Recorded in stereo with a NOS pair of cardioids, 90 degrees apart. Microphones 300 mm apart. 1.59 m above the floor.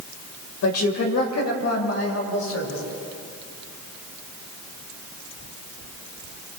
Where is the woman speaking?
60° left, 6 m; by 2.8 s 50° left, 8.5 m.